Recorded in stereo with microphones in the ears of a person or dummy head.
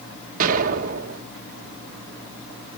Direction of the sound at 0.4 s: 50° right (ahead or behind).